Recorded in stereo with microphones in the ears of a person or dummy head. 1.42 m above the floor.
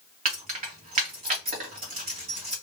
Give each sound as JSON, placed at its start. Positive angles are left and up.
{"t": 0.2, "sound": "keys jangling", "side_deg": -35, "distance_m": 1.1}